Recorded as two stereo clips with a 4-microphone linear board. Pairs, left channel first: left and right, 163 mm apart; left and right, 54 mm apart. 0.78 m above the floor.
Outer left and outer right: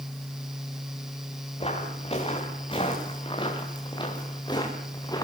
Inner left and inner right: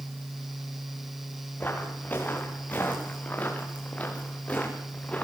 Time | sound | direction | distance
1.6 | footsteps | 35° left (ahead or behind) | 8 m